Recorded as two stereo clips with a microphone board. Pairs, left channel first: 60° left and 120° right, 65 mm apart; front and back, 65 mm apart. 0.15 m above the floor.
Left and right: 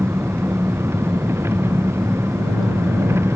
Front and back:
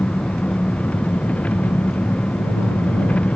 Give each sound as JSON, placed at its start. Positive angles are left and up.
{"t": 0.0, "sound": "an engine running", "azimuth_deg": -70}